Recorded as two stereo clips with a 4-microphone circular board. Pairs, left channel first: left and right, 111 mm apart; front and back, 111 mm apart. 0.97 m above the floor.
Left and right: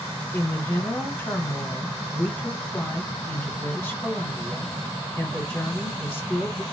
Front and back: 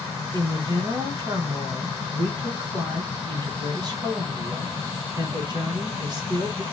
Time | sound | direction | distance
0.3 | a woman speaking | 155° left | 1.1 m